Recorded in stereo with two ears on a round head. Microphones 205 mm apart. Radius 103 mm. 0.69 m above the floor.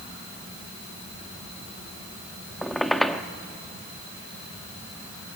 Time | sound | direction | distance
2.6 | a squeak | centre (ahead or behind) | 0.7 m